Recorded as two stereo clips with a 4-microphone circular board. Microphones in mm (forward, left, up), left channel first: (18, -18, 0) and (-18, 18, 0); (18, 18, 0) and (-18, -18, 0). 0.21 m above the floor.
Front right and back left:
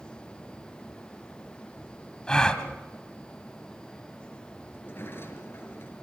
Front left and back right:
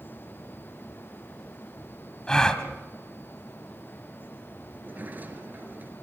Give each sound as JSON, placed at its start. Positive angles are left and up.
{"t": 2.3, "sound": "a gasp", "azimuth_deg": -5, "distance_m": 1.7}
{"t": 4.7, "sound": "a sliding door", "azimuth_deg": -80, "distance_m": 3.0}